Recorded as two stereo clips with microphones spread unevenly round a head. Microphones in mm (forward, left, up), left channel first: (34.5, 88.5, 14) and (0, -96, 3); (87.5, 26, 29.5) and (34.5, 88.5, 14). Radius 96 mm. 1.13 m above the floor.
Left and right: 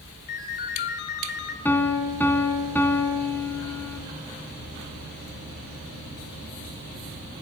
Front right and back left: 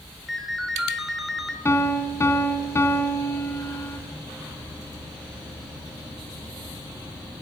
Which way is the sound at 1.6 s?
Straight ahead.